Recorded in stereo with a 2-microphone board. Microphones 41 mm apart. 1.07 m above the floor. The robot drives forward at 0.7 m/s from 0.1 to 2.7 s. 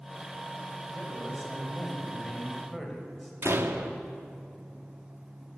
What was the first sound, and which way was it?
A man speaking, centre (ahead or behind).